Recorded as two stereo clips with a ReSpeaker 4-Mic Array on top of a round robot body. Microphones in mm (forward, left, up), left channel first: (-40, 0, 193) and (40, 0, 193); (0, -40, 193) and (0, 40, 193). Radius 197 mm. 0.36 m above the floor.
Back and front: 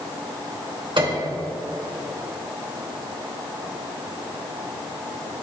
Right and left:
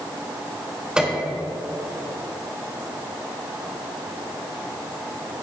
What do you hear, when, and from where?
1.0 s a piano: 10° left, 3 m